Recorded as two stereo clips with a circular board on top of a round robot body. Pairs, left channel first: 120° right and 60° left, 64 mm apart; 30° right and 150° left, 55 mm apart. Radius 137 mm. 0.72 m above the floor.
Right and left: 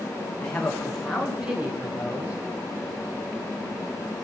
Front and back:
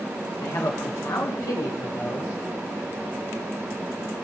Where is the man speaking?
45° right, 1.3 m; by 2.3 s 10° right, 2.5 m.